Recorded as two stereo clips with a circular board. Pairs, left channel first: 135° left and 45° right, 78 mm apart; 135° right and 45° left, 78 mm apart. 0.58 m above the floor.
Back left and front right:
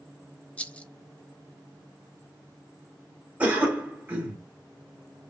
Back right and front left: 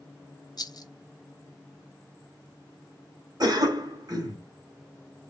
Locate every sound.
0.6 s a rattle: 150° right, 0.5 m
3.4 s a cough: 25° left, 2 m